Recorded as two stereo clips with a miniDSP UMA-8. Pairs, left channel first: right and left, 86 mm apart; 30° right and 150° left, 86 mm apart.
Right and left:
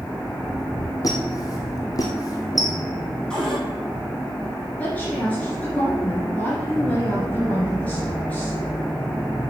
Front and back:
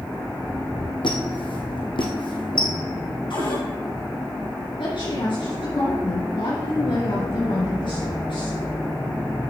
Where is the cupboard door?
5° right, 5 m.